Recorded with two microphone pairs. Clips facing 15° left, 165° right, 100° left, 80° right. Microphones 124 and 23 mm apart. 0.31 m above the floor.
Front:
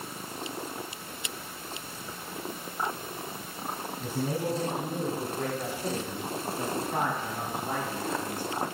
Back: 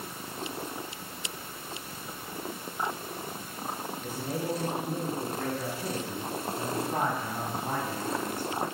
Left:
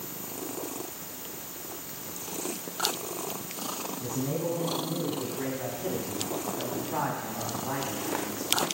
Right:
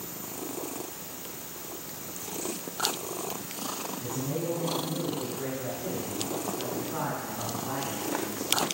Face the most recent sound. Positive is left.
turn(degrees=165)